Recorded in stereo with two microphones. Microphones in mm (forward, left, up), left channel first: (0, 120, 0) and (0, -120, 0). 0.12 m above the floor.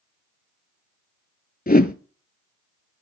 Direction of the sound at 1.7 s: 40° left (ahead or behind).